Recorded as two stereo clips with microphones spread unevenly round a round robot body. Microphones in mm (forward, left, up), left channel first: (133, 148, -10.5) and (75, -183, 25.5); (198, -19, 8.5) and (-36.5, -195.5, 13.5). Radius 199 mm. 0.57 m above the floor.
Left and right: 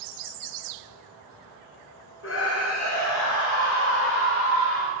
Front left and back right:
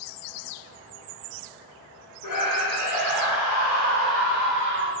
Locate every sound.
2.2 s a scream: 30° left, 2.0 m; by 4.9 s 70° left, 2.5 m